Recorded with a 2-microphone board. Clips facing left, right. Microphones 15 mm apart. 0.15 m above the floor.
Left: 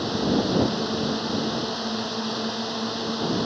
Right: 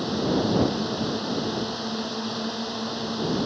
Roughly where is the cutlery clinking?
I don't hear cutlery clinking.